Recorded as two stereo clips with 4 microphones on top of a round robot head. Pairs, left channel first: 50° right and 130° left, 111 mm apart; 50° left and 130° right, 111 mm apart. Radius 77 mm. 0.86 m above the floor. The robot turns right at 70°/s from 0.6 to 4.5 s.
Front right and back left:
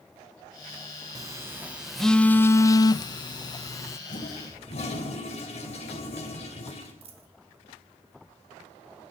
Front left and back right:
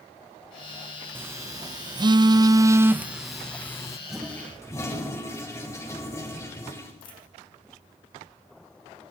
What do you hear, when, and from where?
1.1 s a phone buzzing: 165° left, 0.5 m; by 4.0 s 5° left, 0.5 m
4.1 s a toilet flushing: 45° right, 3.5 m; by 6.9 s 15° right, 3.5 m
7.0 s a dropped coin: 95° left, 2 m